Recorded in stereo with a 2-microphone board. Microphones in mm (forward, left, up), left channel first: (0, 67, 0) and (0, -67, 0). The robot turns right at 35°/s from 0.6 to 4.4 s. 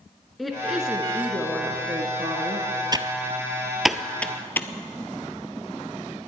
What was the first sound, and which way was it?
A woman speaking, straight behind.